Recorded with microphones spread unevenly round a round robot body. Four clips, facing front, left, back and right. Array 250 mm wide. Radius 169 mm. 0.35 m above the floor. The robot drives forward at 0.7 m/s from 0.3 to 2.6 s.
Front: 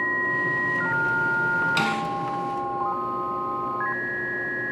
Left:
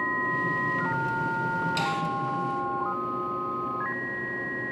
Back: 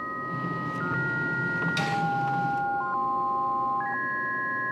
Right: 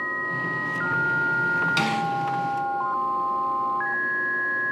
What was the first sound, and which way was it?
A snare drum, 50° right.